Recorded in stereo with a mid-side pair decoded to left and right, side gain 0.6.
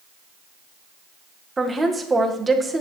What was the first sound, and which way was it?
A woman speaking, 20° right.